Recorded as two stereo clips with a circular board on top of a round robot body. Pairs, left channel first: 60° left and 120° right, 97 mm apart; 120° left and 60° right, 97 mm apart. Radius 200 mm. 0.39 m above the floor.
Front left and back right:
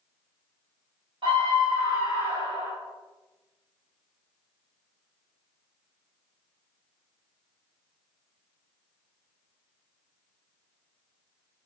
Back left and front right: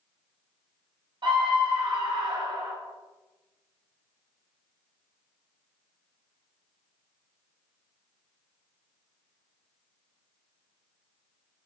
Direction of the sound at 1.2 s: 85° right.